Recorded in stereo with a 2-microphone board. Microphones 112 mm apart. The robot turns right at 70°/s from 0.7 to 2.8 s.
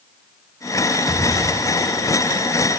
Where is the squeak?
I don't hear a squeak.